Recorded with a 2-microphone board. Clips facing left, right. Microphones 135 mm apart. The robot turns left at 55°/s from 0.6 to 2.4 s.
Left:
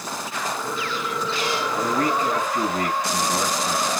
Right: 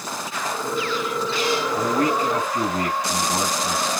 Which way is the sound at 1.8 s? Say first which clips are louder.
Even; 15° right (ahead or behind).